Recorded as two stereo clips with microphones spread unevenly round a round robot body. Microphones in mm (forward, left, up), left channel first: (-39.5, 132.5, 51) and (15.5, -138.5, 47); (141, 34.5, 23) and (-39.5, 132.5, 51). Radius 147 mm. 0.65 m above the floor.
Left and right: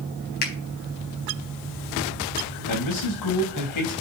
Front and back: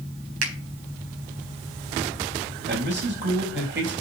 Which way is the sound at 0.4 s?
160° left.